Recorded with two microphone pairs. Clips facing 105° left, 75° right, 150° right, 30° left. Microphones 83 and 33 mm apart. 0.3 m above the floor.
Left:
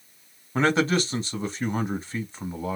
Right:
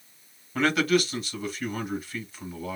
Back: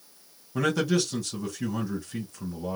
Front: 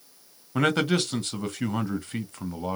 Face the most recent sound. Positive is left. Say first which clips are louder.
# left 1 dB, front 2 dB
turn(degrees=50)